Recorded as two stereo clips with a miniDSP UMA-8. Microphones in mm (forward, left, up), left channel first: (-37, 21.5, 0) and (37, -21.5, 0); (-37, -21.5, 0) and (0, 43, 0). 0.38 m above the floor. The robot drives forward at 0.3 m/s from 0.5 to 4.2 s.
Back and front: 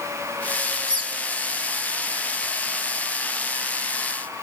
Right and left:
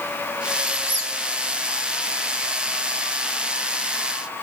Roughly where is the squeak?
Ahead right.